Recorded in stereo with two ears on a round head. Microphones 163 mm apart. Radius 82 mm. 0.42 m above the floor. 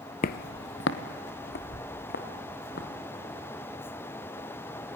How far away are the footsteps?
About 0.6 m.